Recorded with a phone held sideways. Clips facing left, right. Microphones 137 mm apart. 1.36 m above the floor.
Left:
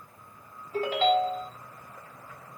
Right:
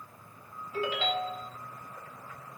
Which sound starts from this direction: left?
A ringtone, at 0.7 s.